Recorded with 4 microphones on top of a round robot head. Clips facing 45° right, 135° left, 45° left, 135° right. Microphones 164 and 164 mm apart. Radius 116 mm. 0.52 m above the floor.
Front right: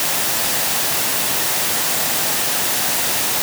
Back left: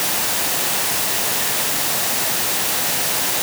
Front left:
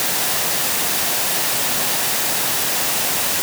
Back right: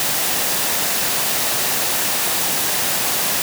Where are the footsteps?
No footsteps in this recording.